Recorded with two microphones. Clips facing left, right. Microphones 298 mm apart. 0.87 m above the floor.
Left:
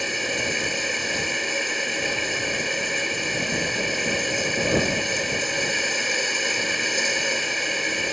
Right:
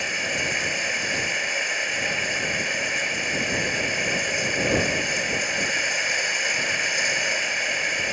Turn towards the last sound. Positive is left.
turn(degrees=45)  # may be behind; listen again after turning